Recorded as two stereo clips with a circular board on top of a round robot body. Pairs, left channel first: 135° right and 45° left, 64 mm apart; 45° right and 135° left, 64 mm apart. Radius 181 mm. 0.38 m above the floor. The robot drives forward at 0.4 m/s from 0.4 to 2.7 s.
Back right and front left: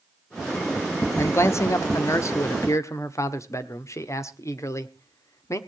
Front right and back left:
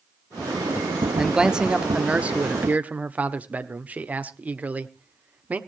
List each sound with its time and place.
1.2 s a man speaking: 145° right, 1.0 m; by 5.6 s 165° right, 1.4 m